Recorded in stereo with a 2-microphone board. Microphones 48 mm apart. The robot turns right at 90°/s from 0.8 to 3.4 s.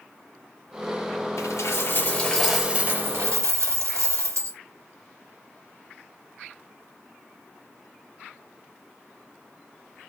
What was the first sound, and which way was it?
A dropped coin, 85° left.